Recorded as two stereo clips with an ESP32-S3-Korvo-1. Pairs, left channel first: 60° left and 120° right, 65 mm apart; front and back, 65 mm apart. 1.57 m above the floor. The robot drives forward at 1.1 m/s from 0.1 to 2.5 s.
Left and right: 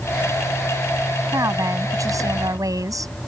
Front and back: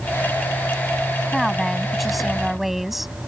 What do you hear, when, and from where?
1.3 s a woman speaking: 85° right; by 3.1 s 90° right